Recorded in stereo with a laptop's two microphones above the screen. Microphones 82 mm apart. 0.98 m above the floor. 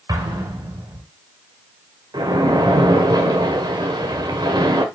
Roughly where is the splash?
Right.